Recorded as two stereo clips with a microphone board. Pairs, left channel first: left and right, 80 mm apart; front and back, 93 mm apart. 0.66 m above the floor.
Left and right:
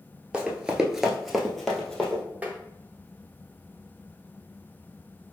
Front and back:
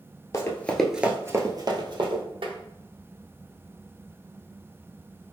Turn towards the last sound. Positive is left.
turn(degrees=-160)